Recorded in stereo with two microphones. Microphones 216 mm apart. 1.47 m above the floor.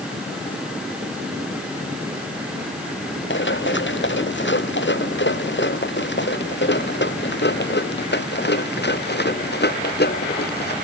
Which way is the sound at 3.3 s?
60° left (ahead or behind).